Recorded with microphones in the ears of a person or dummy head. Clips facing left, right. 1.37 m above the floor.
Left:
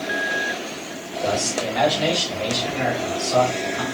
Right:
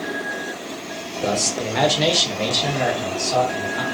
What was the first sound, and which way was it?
A man speaking, 45° right (ahead or behind).